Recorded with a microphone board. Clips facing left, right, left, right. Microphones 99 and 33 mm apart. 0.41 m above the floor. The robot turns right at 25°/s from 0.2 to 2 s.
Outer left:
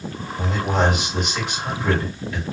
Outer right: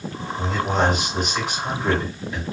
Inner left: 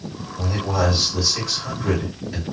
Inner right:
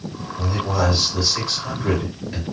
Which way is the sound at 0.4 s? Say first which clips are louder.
Even, even; 160° left.